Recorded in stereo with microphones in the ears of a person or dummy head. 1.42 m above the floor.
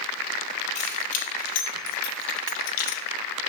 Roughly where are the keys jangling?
Left.